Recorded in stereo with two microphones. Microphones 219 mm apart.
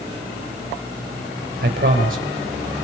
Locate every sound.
1.6 s a man speaking: 40° right (ahead or behind), 3 m